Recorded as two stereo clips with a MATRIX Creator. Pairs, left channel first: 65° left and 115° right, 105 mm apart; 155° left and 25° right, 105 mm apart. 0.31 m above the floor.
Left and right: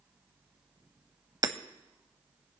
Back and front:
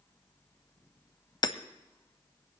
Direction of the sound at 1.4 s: 160° right.